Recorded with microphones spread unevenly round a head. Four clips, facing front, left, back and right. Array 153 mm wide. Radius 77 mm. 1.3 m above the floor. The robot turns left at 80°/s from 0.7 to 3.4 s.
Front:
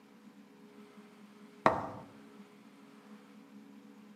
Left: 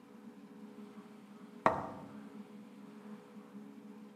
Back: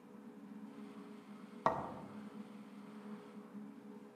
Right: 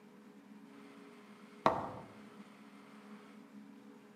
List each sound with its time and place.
1.6 s a thud: 5° right, 0.7 m; by 2.0 s 40° right, 0.7 m